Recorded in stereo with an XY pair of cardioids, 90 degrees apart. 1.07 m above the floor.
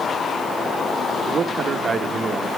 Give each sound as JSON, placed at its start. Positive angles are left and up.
{"t": 1.3, "sound": "a man speaking", "azimuth_deg": -55, "distance_m": 1.2}